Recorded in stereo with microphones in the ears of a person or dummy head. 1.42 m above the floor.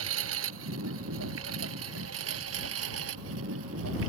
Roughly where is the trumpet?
I don't hear a trumpet.